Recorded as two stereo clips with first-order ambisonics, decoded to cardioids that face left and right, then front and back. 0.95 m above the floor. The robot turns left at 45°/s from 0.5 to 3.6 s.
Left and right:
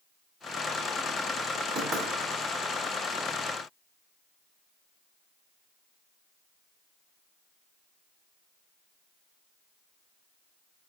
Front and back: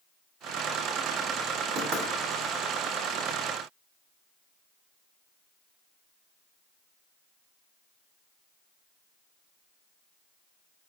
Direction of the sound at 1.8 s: 145° right.